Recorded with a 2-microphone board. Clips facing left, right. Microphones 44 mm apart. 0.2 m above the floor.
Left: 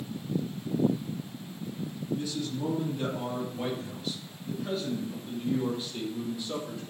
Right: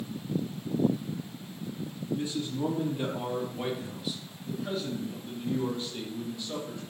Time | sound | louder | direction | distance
2.1 | a man speaking | right 2 dB | 25° right (ahead or behind) | 4.5 m